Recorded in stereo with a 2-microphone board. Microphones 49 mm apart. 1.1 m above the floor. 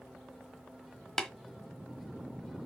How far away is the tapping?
About 1.0 m.